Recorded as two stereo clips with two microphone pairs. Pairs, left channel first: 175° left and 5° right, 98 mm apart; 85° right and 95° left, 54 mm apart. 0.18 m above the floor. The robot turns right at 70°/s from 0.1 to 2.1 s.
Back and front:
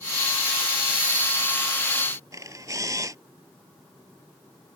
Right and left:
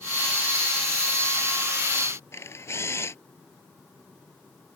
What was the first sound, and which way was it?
A camera shutter, 55° right.